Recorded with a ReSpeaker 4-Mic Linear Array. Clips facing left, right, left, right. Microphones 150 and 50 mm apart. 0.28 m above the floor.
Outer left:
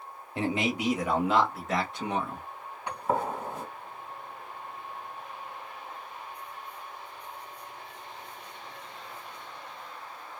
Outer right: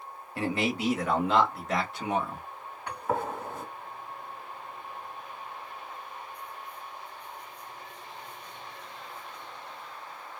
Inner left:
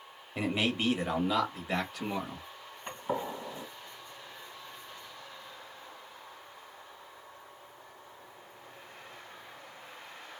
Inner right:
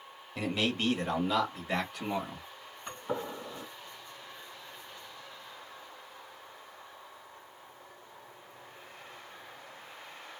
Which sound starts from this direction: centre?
A gunshot, at 2.9 s.